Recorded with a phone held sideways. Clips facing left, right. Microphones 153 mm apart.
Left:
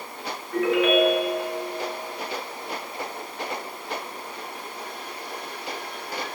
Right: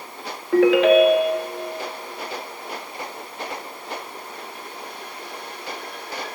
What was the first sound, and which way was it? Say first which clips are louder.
A ringtone: right 7 dB; 80° right.